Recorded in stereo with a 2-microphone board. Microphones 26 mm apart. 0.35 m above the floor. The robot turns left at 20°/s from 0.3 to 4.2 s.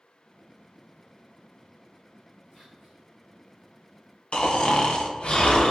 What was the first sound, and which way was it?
Whispering, 5° left (ahead or behind).